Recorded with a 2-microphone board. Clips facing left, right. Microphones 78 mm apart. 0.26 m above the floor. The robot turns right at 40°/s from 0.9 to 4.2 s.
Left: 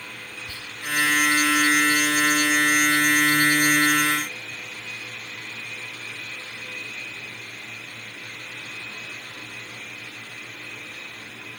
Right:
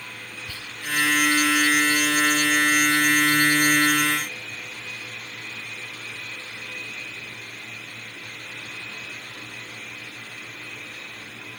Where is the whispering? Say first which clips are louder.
Even; 15° left (ahead or behind), 1.5 m.